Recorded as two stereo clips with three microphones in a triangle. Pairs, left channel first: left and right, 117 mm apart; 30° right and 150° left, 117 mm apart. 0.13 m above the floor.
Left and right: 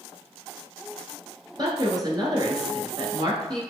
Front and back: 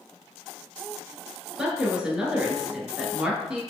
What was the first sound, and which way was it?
A woman speaking, 130° right.